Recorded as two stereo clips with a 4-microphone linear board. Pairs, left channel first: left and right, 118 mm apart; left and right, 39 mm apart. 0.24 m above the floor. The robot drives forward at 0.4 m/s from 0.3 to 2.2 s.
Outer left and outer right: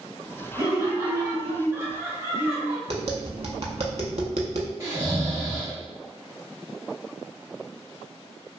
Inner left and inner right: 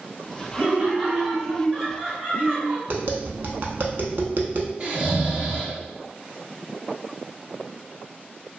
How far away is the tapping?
About 0.5 m.